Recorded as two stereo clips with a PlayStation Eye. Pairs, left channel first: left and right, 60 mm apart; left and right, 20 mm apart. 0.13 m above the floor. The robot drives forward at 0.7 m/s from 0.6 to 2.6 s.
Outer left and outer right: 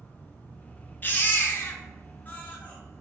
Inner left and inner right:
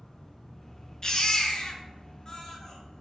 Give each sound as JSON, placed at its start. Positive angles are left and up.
{"t": 0.0, "sound": "an insect", "side_deg": 25, "distance_m": 1.3}
{"t": 1.0, "sound": "a baby crying", "side_deg": 35, "distance_m": 0.8}